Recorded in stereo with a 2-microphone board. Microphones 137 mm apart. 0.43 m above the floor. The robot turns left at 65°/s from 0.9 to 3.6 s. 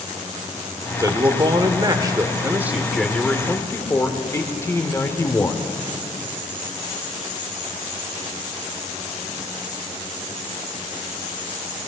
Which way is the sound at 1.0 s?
50° right.